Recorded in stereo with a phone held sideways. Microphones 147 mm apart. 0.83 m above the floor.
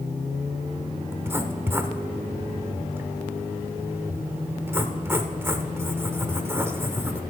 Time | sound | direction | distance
1.1 | writing | 15° right (ahead or behind) | 0.8 m